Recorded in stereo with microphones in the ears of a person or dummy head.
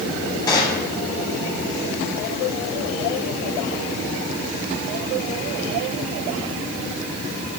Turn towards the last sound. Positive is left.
turn(degrees=20)  # may be behind; listen again after turning